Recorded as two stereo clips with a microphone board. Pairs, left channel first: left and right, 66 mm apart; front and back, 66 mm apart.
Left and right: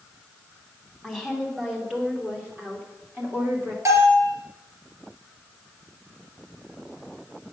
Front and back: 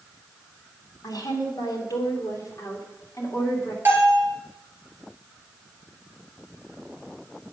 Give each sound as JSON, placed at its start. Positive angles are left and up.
{"t": 1.0, "sound": "a woman speaking", "azimuth_deg": -5, "distance_m": 2.5}
{"t": 3.9, "sound": "a bell", "azimuth_deg": -125, "distance_m": 3.0}